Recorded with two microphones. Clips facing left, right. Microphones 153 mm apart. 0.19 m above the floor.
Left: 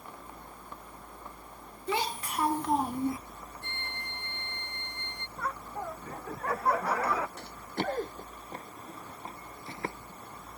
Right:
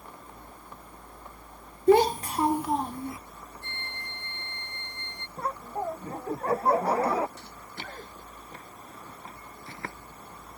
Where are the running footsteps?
60° left (ahead or behind); by 10.0 s 20° left (ahead or behind).